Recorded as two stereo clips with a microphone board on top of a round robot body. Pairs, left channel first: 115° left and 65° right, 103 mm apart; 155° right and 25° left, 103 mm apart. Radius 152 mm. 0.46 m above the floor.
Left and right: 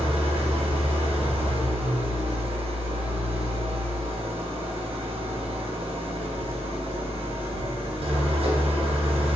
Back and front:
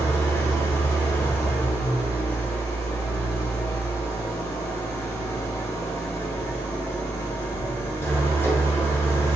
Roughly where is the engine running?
Right.